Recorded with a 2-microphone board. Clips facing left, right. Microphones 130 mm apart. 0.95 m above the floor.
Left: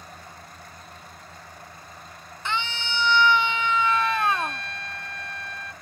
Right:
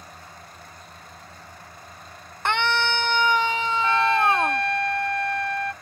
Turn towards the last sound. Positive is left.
turn(degrees=-65)  # may be behind; listen again after turning